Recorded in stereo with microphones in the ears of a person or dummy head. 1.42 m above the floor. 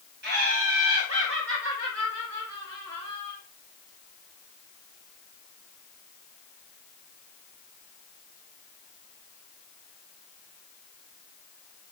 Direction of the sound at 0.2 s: 60° right (ahead or behind).